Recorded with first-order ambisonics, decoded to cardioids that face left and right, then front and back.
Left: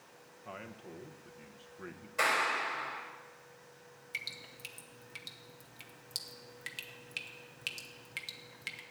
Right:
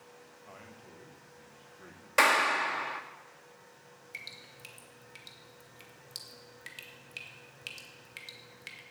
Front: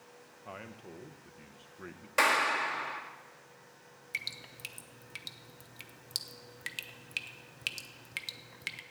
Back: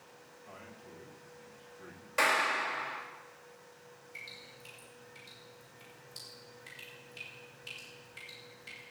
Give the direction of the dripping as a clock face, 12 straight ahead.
12 o'clock.